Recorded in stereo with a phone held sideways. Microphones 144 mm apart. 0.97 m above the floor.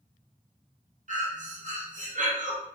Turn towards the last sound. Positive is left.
turn(degrees=-60)  # may be behind; listen again after turning